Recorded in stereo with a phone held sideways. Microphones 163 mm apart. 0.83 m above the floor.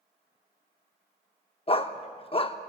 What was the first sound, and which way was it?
A dog barking, 35° left (ahead or behind).